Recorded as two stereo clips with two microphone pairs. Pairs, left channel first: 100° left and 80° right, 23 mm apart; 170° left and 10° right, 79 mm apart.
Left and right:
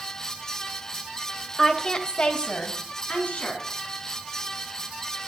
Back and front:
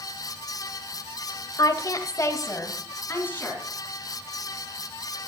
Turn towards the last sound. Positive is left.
turn(degrees=105)